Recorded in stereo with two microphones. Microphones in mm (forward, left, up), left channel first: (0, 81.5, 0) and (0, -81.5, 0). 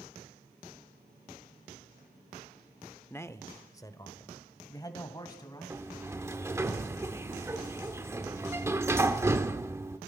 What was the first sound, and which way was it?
A man speaking, 15° left (ahead or behind).